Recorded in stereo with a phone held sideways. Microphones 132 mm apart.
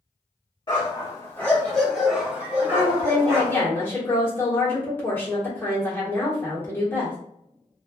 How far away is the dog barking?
About 1.3 m.